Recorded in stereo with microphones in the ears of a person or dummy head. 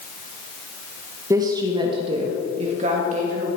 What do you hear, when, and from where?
1.3 s a woman speaking: 20° right (ahead or behind), 1.8 m; by 3.5 s 50° right (ahead or behind), 3 m